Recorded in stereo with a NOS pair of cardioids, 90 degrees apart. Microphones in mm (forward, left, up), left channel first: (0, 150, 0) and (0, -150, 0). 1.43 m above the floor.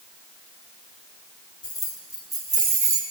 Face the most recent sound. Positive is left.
turn(degrees=-50)